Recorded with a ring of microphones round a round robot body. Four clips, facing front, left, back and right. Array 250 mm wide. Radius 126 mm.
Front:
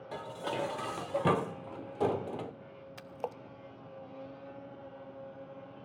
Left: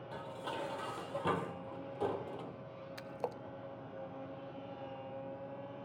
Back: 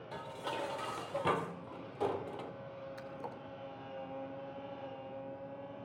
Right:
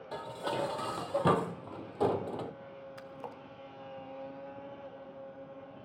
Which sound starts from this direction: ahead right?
Dishes clattering, at 0.1 s.